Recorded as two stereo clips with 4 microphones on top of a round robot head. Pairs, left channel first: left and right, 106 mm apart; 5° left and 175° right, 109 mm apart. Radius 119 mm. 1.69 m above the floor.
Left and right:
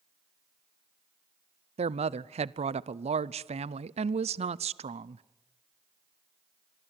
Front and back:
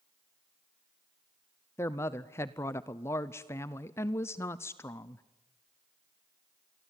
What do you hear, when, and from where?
1.8 s a woman speaking: 65° right, 0.6 m